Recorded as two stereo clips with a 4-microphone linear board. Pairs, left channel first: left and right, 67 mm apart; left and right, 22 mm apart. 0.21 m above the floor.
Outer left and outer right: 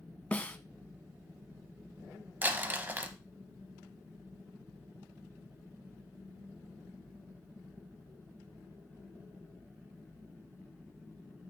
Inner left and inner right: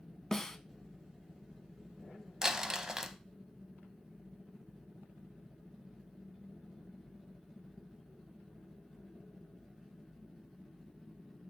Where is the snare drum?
25° left (ahead or behind), 0.5 m.